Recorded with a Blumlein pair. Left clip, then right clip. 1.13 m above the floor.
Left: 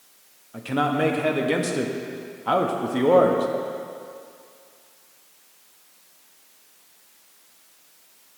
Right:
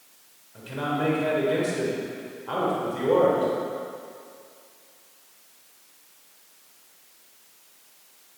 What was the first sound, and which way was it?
A man speaking, 45° left.